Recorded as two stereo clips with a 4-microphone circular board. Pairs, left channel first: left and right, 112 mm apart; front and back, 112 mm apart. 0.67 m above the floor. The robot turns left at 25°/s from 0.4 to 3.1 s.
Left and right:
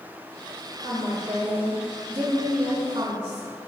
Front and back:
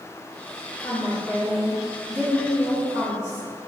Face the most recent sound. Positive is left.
turn(degrees=-130)